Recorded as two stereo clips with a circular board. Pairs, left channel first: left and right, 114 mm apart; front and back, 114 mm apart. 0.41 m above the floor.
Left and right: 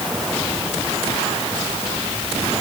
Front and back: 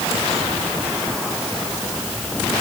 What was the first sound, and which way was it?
Only background noise.